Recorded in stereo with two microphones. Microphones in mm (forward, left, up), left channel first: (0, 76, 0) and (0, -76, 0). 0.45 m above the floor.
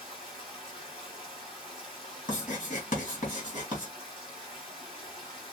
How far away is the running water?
About 2 m.